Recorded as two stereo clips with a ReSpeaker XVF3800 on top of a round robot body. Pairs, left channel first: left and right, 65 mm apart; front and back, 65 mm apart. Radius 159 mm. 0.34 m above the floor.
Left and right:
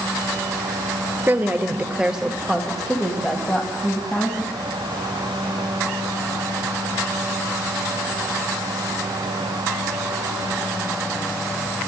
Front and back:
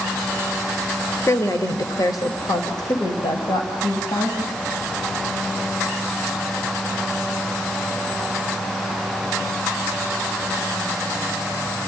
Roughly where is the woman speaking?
Ahead right.